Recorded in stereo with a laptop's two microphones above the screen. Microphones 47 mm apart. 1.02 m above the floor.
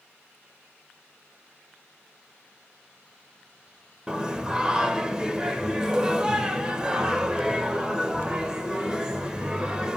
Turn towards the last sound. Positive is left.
turn(degrees=-15)  # may be behind; listen again after turning